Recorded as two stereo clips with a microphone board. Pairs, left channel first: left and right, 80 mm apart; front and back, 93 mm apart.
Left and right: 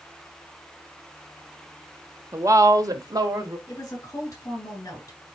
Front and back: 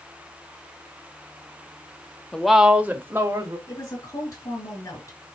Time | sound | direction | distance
2.3 | a woman speaking | 75° right | 0.8 m
3.7 | a woman speaking | 45° left | 3.5 m